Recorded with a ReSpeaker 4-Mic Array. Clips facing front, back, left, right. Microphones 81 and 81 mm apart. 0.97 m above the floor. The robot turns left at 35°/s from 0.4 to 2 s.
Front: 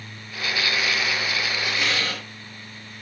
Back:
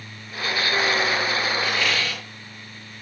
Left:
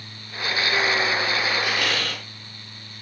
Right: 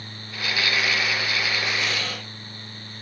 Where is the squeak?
70° left, 9 m; by 2.2 s 60° left, 9 m.